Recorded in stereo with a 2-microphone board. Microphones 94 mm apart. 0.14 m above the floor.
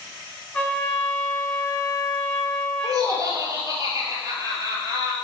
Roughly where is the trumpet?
Centre.